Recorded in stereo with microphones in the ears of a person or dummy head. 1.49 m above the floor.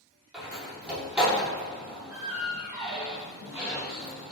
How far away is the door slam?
About 2.5 m.